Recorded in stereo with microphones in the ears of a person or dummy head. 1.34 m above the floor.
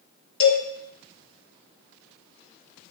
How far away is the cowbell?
About 1.6 m.